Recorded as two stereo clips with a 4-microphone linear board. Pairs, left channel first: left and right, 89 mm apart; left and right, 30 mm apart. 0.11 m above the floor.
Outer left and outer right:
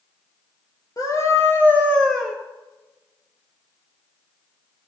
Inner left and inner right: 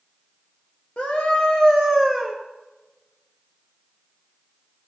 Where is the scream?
40° left (ahead or behind), 1.8 m; by 2.4 s centre (ahead or behind), 1.8 m.